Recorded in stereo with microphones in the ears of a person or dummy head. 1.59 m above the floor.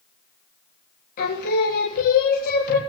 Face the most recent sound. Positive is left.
turn(degrees=55)  # may be behind; listen again after turning